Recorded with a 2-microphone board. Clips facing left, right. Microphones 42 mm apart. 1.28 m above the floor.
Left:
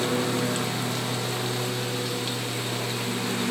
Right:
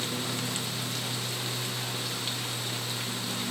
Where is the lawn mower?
70° left (ahead or behind).